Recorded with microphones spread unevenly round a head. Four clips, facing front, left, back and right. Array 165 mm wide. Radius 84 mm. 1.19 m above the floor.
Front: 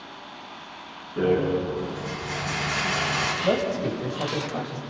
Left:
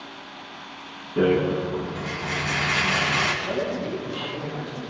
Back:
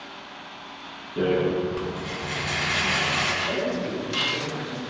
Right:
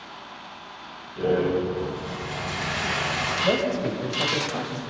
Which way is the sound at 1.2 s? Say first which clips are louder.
Left 2 dB, even; 100° left.